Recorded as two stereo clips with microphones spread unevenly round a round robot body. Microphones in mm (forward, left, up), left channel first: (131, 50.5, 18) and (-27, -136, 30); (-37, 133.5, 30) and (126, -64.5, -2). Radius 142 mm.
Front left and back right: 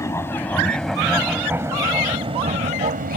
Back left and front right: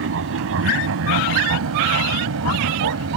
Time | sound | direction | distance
0.0 | an aircraft | 25° right | ?